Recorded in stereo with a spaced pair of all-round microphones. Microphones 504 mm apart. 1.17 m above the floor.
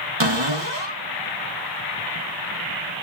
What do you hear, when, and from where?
0.2 s a cupboard door: 60° right (ahead or behind), 1.1 m